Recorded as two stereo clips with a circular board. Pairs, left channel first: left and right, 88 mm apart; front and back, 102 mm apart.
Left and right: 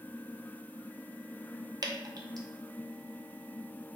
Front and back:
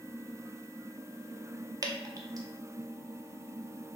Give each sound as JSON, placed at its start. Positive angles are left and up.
{"t": 1.8, "sound": "dripping", "azimuth_deg": -130, "distance_m": 0.6}